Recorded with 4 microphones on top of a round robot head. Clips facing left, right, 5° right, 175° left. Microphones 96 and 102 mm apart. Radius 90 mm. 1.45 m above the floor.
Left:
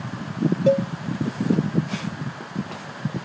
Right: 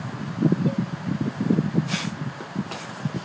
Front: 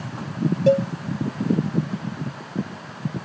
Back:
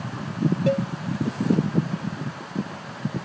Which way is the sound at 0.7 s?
55° left.